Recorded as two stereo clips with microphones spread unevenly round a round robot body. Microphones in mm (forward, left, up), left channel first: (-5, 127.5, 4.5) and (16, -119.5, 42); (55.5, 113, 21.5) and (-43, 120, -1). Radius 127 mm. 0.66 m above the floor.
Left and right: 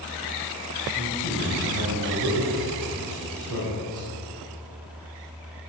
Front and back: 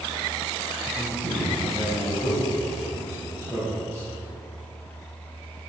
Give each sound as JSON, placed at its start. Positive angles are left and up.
{"t": 0.9, "sound": "a man speaking", "azimuth_deg": -85, "distance_m": 4.0}